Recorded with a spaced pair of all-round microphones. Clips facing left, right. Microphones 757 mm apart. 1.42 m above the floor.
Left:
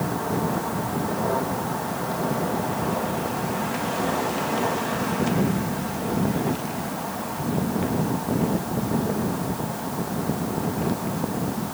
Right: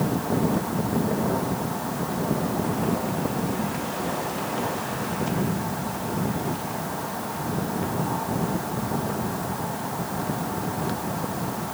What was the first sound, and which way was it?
Only background noise.